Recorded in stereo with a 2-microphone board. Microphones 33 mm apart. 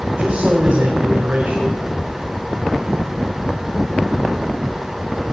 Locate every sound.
0.2 s a man speaking: 45° right (ahead or behind), 1.7 m